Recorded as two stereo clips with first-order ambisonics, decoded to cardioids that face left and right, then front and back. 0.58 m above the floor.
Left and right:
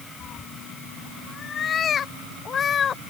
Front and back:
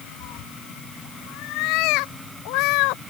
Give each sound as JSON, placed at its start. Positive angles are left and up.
{"t": 0.2, "sound": "a cat meowing", "azimuth_deg": 25}